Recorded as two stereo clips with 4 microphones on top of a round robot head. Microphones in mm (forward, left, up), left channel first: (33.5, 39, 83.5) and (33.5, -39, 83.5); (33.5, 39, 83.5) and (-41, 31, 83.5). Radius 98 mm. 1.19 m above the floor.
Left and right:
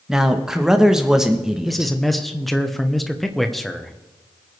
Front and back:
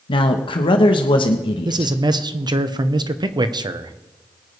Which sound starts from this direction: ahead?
A man speaking, at 0.1 s.